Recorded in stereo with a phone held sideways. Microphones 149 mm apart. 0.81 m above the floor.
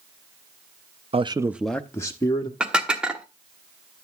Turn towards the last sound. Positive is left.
turn(degrees=-5)  # may be behind; listen again after turning